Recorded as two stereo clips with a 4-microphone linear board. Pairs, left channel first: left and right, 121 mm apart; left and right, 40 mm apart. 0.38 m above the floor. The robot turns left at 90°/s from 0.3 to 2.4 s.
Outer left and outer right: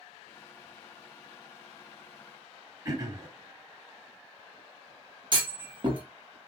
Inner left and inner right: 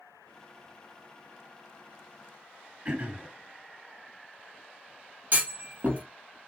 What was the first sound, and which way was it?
Throat clearing, 30° right (ahead or behind).